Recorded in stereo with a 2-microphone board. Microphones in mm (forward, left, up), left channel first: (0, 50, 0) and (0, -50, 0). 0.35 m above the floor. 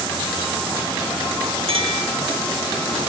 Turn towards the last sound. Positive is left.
turn(degrees=-75)  # may be behind; listen again after turning